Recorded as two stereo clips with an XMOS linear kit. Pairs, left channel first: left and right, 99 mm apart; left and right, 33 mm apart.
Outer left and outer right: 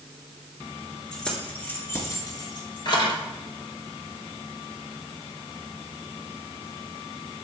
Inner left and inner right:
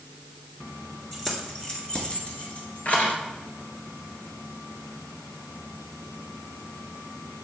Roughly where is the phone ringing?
I don't hear a phone ringing.